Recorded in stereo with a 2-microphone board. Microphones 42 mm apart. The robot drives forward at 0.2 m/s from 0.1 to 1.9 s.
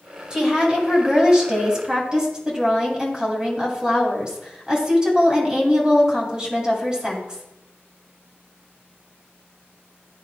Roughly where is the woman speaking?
Right.